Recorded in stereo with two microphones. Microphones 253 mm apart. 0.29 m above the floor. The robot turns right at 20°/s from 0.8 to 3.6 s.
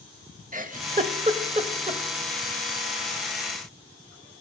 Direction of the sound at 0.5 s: 30° right (ahead or behind).